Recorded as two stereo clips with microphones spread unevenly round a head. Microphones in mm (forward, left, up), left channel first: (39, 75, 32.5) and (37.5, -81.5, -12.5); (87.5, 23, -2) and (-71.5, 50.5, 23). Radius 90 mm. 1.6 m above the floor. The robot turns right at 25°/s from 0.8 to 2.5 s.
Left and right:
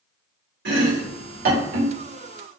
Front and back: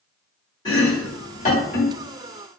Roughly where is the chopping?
Right.